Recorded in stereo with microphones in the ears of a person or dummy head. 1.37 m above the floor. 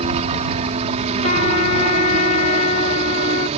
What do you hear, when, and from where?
0.0 s a helicopter: 30° right (ahead or behind)
1.2 s a trumpet: 40° left (ahead or behind)